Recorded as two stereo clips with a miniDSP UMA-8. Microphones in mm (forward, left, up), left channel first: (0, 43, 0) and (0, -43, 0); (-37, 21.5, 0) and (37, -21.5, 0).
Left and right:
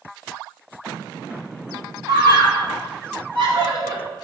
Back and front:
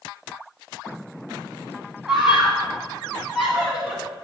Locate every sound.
2.1 s a scream: 115° right, 4 m